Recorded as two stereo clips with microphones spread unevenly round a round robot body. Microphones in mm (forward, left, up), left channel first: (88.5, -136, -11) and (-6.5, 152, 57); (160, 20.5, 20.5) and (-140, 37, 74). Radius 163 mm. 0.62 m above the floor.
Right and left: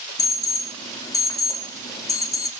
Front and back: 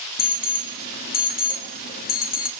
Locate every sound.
0.2 s an alarm: 15° right, 1.0 m